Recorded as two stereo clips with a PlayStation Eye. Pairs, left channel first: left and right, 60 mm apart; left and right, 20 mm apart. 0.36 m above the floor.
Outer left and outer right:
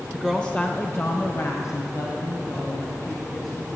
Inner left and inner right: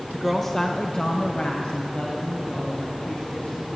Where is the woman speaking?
5° right (ahead or behind), 1.0 m; by 3.8 s 75° left (ahead or behind), 4.5 m.